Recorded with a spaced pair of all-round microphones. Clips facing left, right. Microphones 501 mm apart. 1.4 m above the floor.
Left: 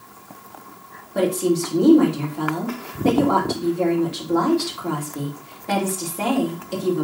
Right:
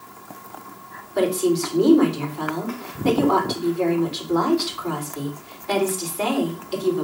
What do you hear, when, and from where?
1.1 s a woman speaking: 70° left (ahead or behind), 3 m